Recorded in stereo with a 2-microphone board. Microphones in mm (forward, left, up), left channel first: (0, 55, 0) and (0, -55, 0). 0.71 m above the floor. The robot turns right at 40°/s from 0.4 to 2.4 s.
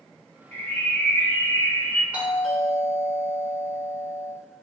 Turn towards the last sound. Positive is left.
turn(degrees=-10)  # may be behind; listen again after turning